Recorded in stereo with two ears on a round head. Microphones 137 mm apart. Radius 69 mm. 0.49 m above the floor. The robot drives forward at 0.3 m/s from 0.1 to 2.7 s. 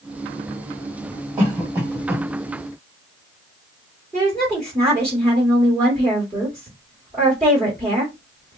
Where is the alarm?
I don't hear an alarm.